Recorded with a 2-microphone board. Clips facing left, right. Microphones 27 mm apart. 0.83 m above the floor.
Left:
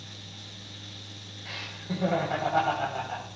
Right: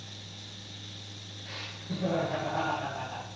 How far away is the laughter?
About 4.5 m.